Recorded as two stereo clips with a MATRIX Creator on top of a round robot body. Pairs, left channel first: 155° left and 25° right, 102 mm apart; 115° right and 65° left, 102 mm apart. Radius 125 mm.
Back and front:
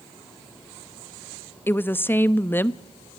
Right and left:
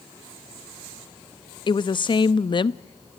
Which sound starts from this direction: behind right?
A woman speaking, at 1.7 s.